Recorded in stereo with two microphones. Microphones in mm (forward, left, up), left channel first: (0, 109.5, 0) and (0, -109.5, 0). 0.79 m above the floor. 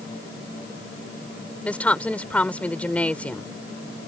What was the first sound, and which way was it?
A woman speaking, 5° left (ahead or behind).